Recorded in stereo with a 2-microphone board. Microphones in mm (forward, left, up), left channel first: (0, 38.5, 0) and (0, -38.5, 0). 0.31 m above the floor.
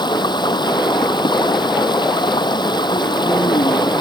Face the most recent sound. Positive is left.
turn(degrees=75)  # may be behind; listen again after turning